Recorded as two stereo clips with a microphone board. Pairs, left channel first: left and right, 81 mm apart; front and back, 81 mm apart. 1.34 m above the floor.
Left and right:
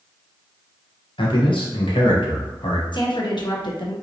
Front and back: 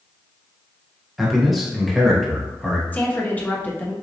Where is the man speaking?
90° left, 1.2 m.